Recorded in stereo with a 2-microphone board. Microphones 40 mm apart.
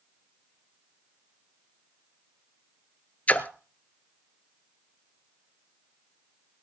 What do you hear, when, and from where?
3.3 s a splash: 40° left (ahead or behind), 0.9 m